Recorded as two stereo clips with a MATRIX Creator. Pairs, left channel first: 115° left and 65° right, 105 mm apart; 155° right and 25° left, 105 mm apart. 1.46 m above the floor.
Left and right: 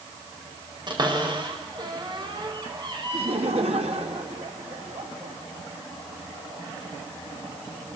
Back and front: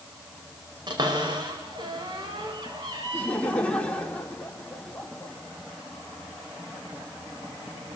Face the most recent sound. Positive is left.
turn(degrees=-80)